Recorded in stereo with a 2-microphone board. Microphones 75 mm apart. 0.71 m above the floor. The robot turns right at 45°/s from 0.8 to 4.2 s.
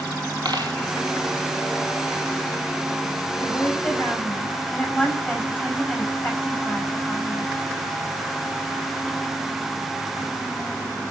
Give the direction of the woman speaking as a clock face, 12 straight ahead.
8 o'clock.